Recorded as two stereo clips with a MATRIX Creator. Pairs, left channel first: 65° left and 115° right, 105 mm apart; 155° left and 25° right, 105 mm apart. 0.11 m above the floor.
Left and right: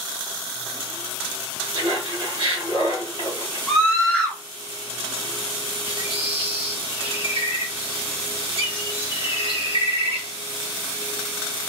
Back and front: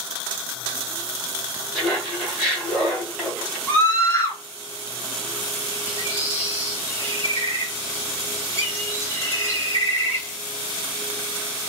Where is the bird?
140° right, 1.6 m.